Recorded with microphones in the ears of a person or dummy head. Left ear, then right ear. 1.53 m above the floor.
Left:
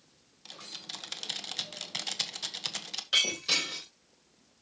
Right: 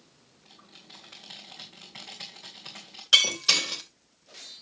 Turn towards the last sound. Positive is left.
turn(degrees=-35)  # may be behind; listen again after turning